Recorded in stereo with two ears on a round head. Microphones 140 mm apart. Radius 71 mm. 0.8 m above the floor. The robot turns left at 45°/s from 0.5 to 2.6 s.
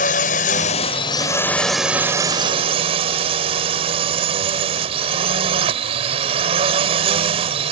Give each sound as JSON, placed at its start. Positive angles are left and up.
{"t": 0.0, "sound": "a drone", "azimuth_deg": 55}